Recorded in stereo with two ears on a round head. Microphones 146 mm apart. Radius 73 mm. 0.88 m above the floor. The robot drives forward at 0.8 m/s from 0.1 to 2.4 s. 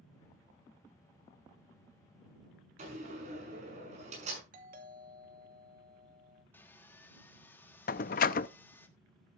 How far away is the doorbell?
About 2.5 m.